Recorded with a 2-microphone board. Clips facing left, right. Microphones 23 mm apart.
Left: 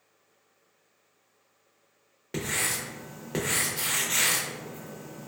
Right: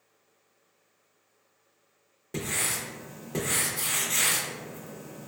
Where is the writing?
35° left (ahead or behind), 0.5 m.